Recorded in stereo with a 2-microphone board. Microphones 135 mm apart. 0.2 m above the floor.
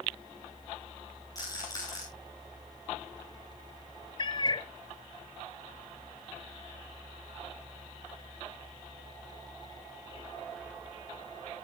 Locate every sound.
1.4 s a rattle: 25° left (ahead or behind), 10 m
4.2 s a cat meowing: 35° left (ahead or behind), 0.6 m